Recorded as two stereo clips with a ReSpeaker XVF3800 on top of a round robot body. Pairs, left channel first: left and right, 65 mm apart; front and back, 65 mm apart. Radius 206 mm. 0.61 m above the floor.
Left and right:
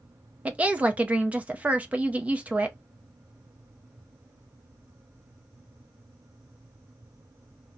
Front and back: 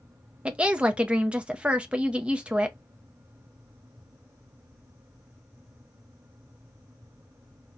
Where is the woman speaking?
130° right, 0.9 m.